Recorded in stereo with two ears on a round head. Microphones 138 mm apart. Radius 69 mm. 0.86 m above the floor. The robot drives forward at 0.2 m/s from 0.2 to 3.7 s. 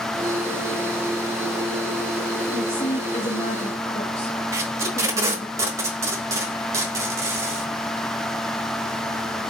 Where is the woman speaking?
45° left (ahead or behind), 0.8 m; by 5.5 s 35° left (ahead or behind), 0.9 m.